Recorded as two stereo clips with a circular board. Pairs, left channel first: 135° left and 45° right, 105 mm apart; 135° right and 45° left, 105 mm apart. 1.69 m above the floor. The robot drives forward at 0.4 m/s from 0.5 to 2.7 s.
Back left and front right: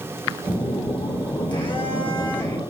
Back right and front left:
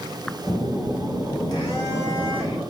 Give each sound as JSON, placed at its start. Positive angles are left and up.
{"t": 0.5, "sound": "a phone buzzing", "azimuth_deg": 175, "distance_m": 2.5}